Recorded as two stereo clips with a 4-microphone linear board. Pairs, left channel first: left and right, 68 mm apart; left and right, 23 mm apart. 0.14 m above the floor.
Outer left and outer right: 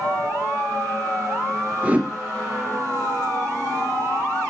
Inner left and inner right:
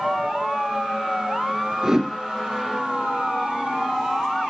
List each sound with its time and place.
1.8 s a whoosh: 25° right (ahead or behind), 2.5 m